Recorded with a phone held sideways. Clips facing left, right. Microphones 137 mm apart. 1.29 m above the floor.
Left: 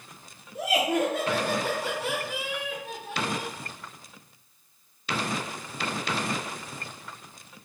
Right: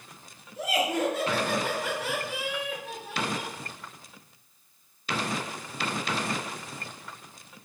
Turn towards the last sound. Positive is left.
turn(degrees=-15)  # may be behind; listen again after turning